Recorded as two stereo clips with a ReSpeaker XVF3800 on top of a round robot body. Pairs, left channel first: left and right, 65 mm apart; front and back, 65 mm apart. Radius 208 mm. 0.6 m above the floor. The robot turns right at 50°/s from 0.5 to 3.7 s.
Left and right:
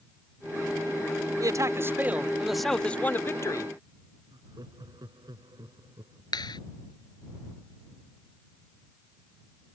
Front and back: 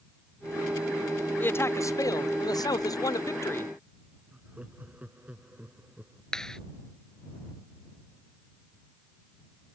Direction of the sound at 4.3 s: 110° right.